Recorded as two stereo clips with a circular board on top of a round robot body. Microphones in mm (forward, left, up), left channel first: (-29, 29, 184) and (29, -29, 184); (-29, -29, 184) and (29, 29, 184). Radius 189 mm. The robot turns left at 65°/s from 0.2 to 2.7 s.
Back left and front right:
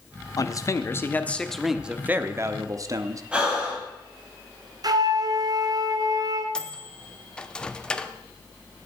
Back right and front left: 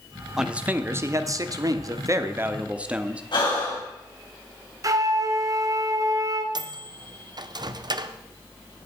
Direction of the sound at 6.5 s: 55° left.